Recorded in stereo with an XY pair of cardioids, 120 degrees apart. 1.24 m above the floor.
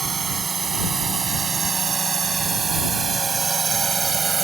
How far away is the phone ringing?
I don't hear a phone ringing.